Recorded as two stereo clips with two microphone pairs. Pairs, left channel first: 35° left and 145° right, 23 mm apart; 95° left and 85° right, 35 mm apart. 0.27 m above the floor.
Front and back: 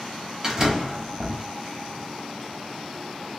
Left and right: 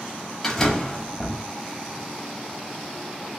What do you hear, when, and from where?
0.4 s a door slam: 165° left, 1.0 m